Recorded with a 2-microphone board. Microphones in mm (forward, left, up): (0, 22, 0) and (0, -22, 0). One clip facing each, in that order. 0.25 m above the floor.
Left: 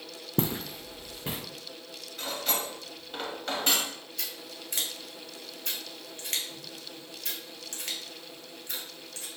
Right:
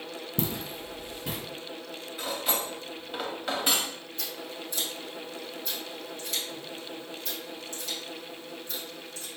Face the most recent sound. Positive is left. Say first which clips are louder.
# right 5 dB
turn(degrees=75)  # may be behind; listen again after turning